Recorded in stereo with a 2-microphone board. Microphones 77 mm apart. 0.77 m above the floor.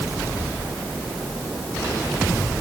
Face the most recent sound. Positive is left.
No sound to turn to.